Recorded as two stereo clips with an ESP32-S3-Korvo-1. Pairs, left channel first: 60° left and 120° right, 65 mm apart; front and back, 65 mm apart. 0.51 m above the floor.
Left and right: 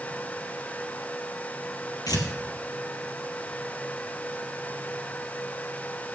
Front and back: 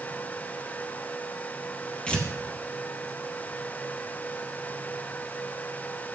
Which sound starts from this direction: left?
Tearing paper, at 2.1 s.